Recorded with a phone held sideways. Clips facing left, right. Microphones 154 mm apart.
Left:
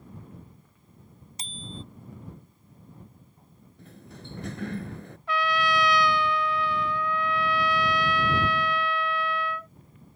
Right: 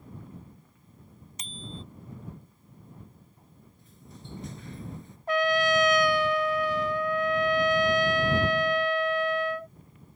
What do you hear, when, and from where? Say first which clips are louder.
1.4 s a bicycle bell: left 1 dB; 30° left (ahead or behind)
3.8 s a sliding door: left 5 dB; 70° left (ahead or behind)
5.3 s a trumpet: right 3 dB; 45° right (ahead or behind)